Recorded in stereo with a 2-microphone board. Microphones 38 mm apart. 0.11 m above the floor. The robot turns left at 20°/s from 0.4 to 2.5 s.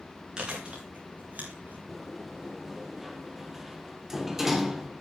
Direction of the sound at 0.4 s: 25° right (ahead or behind).